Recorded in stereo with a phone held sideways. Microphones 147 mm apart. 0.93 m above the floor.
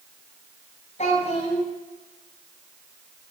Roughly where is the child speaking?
Left.